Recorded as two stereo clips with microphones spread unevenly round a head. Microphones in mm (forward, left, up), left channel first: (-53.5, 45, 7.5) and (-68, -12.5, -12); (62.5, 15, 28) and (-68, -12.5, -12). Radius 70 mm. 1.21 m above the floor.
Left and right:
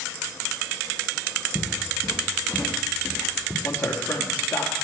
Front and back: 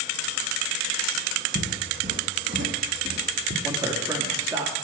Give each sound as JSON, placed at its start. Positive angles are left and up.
{"t": 1.6, "sound": "footsteps", "azimuth_deg": 145, "distance_m": 3.5}
{"t": 3.6, "sound": "a man speaking", "azimuth_deg": 120, "distance_m": 2.5}